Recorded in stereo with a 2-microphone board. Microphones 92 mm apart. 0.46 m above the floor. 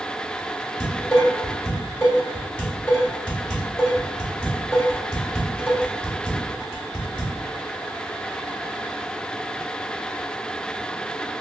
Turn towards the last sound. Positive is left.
turn(degrees=10)  # may be behind; listen again after turning